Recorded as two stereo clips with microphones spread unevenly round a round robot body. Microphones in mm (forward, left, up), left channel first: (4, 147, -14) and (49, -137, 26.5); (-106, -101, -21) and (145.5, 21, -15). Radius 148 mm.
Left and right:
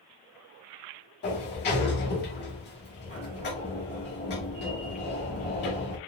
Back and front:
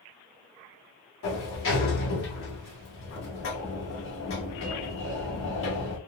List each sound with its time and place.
1.2 s a sliding door: 155° left, 1.1 m